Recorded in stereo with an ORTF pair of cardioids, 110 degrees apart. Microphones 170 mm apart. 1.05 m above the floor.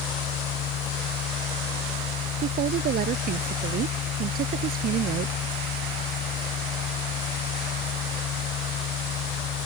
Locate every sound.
0.0 s a machine running: 65° left
2.4 s a woman speaking: 60° right